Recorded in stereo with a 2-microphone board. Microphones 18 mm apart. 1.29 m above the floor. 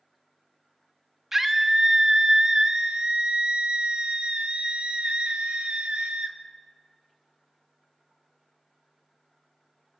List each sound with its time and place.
1.3 s a scream: 20° right (ahead or behind), 2 m; by 6.4 s 80° right, 2.5 m